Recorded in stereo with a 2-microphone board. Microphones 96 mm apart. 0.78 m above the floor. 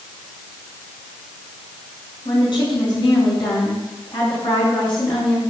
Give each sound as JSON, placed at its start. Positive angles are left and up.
{"t": 2.2, "sound": "a woman speaking", "side_deg": 60, "distance_m": 7.0}